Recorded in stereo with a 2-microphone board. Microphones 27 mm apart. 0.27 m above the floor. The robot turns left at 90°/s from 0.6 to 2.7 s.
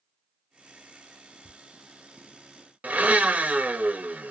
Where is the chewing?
No chewing in this recording.